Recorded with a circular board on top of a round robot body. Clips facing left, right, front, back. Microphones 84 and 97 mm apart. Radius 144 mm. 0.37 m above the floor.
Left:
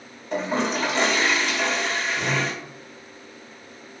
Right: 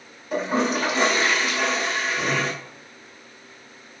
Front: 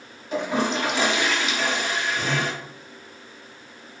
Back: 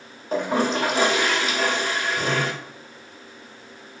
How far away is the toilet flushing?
About 1.4 m.